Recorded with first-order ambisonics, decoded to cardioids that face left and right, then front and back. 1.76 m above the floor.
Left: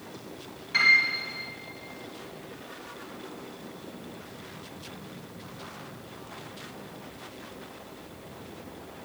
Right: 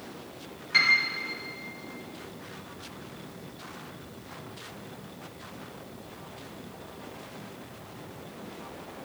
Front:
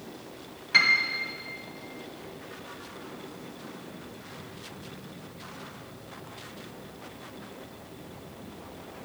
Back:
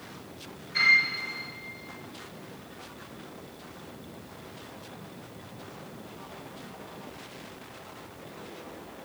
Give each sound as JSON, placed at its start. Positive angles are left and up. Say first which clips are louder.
{"t": 0.7, "sound": "a piano", "louder": "left 2 dB, even", "azimuth_deg": -10, "distance_m": 1.3}